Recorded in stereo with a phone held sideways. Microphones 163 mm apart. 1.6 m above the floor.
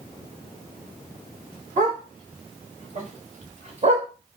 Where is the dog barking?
50° right (ahead or behind), 3.5 m; by 4.1 s 40° right (ahead or behind), 1.6 m.